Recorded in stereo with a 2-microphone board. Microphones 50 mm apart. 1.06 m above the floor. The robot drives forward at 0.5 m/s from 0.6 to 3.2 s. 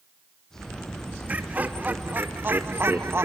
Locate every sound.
1.3 s laughter: 30° right (ahead or behind), 2.0 m; by 3.3 s 55° right (ahead or behind), 1.3 m